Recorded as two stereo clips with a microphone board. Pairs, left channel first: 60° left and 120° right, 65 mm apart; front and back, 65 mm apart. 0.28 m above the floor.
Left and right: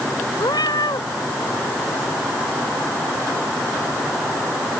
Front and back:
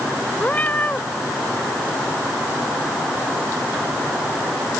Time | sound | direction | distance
0.4 | a cat meowing | 65° left | ?